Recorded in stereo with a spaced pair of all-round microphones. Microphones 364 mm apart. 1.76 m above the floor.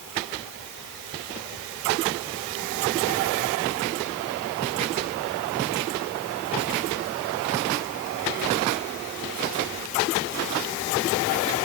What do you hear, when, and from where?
Only background noise.